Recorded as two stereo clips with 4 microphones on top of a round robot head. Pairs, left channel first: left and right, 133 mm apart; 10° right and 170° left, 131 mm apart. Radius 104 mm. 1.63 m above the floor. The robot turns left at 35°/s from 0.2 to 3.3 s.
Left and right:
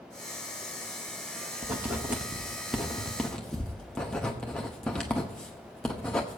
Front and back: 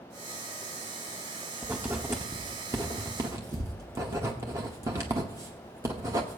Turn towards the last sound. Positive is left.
turn(degrees=165)